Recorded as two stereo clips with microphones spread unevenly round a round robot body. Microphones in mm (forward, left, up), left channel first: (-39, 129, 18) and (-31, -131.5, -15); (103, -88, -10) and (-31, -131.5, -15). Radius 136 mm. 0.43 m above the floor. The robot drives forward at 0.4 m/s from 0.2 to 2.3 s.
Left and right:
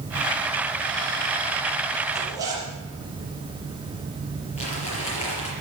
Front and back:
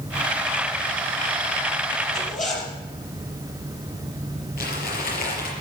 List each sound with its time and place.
2.1 s a zipper: 10° right, 5.5 m
4.6 s crumpling: 25° left, 5 m